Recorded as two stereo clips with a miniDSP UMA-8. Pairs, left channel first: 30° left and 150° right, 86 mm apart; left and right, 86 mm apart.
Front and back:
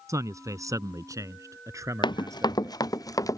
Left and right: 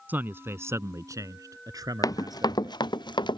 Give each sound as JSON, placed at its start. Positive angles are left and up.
{"t": 0.1, "sound": "a man speaking", "azimuth_deg": -145}
{"t": 2.0, "sound": "running footsteps", "azimuth_deg": 50}